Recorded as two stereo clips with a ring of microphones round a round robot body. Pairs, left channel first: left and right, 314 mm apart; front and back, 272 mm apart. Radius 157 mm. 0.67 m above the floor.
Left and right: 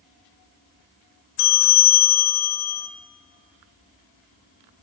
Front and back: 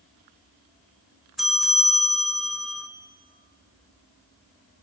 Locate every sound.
1.4 s a bell: 90° left, 1.8 m